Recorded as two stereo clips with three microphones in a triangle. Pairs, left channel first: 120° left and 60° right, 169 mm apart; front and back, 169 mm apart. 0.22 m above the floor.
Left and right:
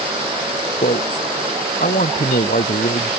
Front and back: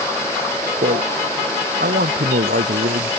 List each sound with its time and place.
0.8 s a man speaking: 155° left